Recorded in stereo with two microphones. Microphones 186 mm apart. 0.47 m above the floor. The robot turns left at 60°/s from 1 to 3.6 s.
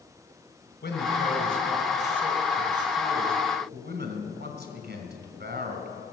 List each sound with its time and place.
0.8 s a man speaking: 80° left, 2.5 m; by 5.9 s 75° right, 2.5 m